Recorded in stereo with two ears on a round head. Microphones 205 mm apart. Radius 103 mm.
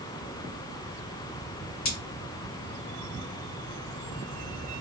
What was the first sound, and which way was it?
Cutlery clinking, 45° left (ahead or behind).